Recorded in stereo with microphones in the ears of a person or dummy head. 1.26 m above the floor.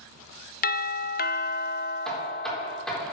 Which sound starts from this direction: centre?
Knocking, at 2.0 s.